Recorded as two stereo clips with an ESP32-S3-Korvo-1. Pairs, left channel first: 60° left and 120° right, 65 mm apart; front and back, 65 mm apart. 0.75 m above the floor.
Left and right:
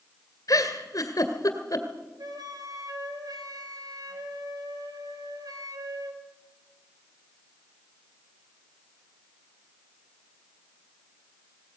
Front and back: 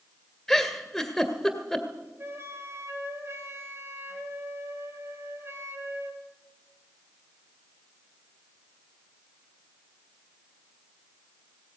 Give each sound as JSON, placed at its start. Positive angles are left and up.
{"t": 0.5, "sound": "a giggle", "azimuth_deg": 85, "distance_m": 2.0}
{"t": 2.2, "sound": "a flute", "azimuth_deg": -130, "distance_m": 3.0}